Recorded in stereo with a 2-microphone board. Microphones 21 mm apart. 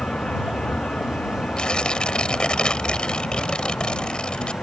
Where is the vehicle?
75° left (ahead or behind).